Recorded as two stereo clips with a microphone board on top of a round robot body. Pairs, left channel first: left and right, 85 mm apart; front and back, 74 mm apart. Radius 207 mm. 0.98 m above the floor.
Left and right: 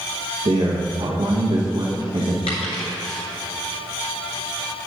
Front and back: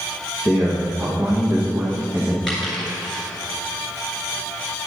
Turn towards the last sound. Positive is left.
turn(degrees=85)